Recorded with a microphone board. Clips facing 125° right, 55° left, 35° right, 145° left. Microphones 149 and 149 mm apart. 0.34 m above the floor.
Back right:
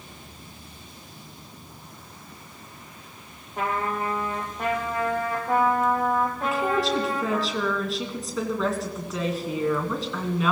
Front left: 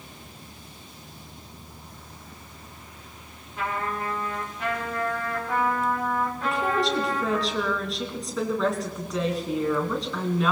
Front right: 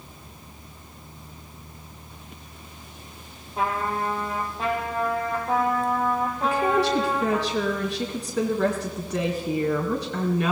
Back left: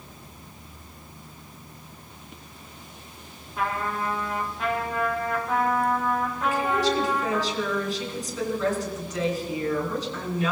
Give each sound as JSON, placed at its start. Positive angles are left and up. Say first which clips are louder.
{"t": 3.6, "sound": "a trumpet", "louder": "back right 3 dB, front right 2 dB", "azimuth_deg": -90, "distance_m": 4.0}
{"t": 6.4, "sound": "a woman speaking", "louder": "front left 2 dB, front right 2 dB", "azimuth_deg": -35, "distance_m": 2.5}